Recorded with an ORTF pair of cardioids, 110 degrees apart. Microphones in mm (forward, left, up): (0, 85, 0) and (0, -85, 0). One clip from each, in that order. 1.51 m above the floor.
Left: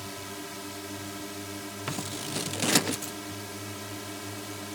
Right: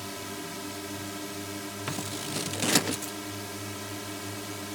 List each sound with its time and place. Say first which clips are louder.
0.0 s a drone: right 1 dB; 5° right
1.9 s scissors: even; 5° left